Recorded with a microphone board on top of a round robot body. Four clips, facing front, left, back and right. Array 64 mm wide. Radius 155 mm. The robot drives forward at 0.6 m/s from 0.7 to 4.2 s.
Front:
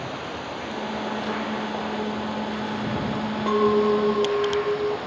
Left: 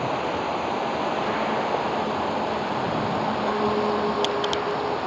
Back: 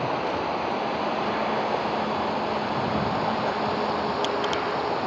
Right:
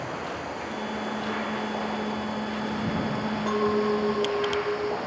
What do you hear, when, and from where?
0.0 s running water: 130° left; by 5.1 s 135° left
3.5 s a clink: straight ahead